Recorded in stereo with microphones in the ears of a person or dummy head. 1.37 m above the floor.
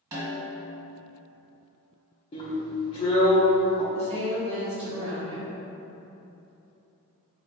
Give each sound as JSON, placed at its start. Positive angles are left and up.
{"t": 0.1, "sound": "a snare drum", "side_deg": -25, "distance_m": 1.8}
{"t": 2.3, "sound": "a drill", "side_deg": 30, "distance_m": 1.0}
{"t": 3.9, "sound": "a woman speaking", "side_deg": -25, "distance_m": 1.0}